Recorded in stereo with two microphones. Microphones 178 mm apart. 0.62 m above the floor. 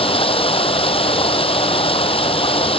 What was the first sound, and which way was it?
Running water, 30° left (ahead or behind).